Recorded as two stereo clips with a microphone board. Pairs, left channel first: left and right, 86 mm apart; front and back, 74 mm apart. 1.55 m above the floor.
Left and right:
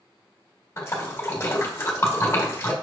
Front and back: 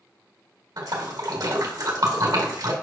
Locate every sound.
0.8 s a splash: 150° left, 1.7 m